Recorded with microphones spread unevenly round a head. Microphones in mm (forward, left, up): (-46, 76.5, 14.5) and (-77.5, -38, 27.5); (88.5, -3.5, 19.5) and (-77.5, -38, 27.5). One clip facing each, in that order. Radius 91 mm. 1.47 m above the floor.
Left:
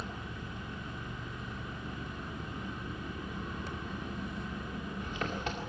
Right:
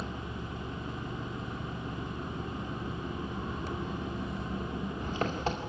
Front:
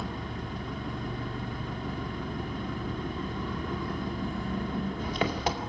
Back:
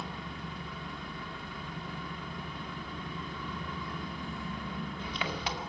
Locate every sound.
0.0 s an engine running: 35° right, 2 m